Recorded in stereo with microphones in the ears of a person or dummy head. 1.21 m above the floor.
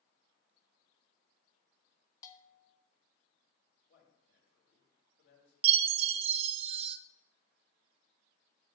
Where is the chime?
40° right (ahead or behind), 0.6 m.